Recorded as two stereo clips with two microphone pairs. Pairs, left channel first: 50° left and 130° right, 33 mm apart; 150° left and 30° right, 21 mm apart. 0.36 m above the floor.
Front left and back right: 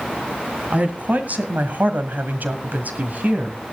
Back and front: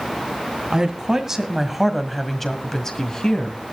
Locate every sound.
0.7 s a woman speaking: 90° right, 2 m; by 3.6 s 170° right, 2 m